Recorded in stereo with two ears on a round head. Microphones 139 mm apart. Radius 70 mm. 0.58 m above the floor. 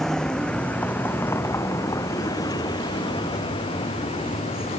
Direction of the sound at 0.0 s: 5° left (ahead or behind).